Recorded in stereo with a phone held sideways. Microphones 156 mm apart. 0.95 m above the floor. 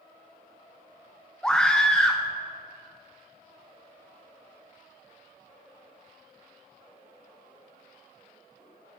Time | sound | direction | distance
1.4 | a scream | 5° left (ahead or behind) | 0.6 m